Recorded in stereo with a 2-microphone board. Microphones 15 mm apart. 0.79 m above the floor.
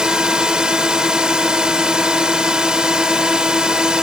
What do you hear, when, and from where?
0.0 s a drone: 65° right (ahead or behind)